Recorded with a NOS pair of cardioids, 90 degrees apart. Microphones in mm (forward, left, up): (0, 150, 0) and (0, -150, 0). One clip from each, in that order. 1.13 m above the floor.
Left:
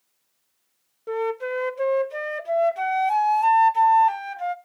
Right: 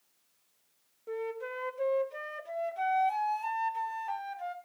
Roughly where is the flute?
Ahead left.